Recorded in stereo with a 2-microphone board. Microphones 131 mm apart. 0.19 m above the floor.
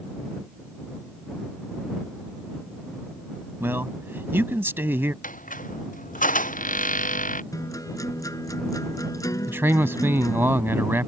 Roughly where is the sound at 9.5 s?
Centre.